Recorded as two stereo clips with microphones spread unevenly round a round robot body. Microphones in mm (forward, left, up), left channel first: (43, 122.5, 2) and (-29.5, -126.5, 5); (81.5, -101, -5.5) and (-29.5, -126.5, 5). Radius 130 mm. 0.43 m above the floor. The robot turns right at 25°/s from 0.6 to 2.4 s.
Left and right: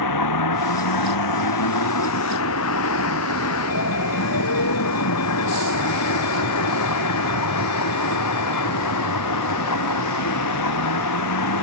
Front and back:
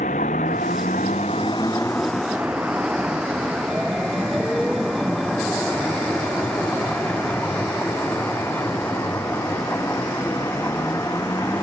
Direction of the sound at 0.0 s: 65° left.